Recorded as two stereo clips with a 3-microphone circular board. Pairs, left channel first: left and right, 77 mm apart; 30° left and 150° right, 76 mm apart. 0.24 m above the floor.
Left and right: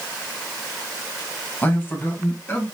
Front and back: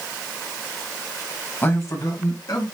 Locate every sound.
1.6 s a man speaking: 60° left, 1.0 m; by 2.7 s 30° left, 2 m